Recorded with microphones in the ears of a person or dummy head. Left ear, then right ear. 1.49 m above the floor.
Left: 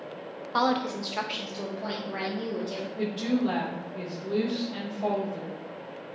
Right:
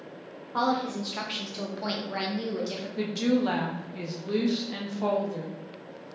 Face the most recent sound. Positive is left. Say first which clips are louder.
# right 3 dB
turn(degrees=-70)  # may be behind; listen again after turning